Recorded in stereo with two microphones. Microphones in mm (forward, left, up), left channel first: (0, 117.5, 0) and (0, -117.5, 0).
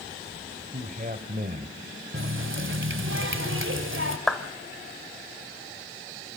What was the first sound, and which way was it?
A man speaking, 40° right (ahead or behind).